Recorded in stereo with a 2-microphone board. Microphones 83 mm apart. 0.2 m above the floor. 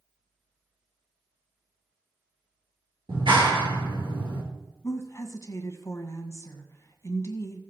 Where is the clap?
65° right (ahead or behind), 3.5 m.